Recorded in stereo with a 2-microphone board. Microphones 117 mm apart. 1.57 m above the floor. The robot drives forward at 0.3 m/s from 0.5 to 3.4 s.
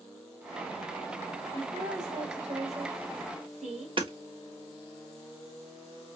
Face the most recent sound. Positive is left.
turn(degrees=-50)  # may be behind; listen again after turning